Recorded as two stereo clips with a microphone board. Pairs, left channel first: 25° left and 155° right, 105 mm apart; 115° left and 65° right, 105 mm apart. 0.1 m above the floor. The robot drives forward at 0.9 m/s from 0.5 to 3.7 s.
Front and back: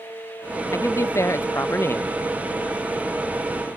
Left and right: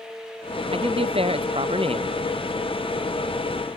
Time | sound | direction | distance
0.7 | a man speaking | 40° right | ?